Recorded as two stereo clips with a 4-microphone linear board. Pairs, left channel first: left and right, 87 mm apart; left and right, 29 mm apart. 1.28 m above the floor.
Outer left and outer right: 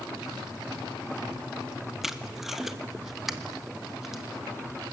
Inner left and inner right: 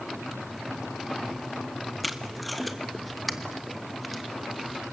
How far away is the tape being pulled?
About 1.2 m.